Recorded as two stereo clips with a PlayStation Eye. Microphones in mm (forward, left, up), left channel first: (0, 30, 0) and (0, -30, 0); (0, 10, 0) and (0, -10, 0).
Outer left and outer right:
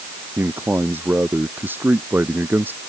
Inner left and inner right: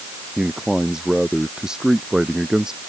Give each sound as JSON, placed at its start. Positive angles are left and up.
{"t": 0.4, "sound": "a man speaking", "side_deg": -35}